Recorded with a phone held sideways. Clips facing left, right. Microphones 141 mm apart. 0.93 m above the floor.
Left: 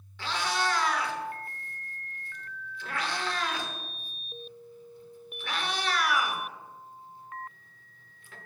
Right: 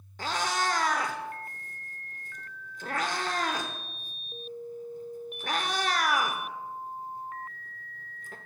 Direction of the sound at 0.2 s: 40° right (ahead or behind).